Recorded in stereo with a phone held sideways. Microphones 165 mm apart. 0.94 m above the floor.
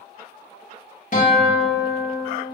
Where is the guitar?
50° left (ahead or behind), 1.6 m.